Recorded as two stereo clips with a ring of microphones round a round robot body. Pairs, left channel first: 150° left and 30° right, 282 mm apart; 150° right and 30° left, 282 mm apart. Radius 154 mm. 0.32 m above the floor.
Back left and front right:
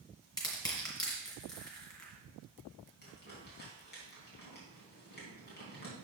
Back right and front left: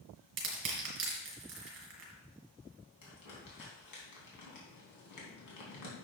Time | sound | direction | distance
0.4 | crushing | 75° left | 2.5 m
3.0 | crumpling | 155° right | 3 m